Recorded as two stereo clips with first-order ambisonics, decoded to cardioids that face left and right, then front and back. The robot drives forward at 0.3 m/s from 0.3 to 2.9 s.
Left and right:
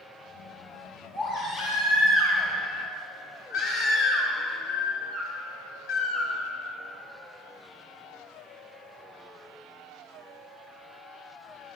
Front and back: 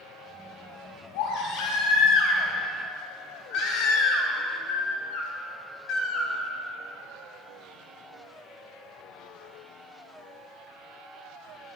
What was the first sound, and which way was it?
A baby crying, 40° left.